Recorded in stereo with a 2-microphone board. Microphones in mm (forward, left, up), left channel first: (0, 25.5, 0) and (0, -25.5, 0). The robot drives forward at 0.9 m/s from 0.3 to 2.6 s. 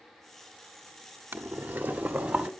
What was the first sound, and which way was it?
Boiling, 45° right (ahead or behind).